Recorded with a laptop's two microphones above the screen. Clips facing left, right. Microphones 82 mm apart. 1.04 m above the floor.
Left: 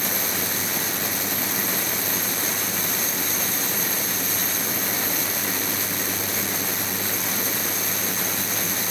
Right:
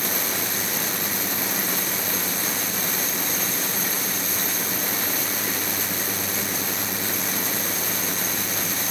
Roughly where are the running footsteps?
I don't hear running footsteps.